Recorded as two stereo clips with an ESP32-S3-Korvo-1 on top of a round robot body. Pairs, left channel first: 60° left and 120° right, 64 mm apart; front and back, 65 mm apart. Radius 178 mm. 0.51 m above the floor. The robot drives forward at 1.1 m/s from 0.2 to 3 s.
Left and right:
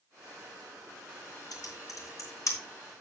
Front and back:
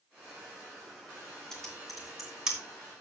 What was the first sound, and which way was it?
Typing on a keyboard, 85° left.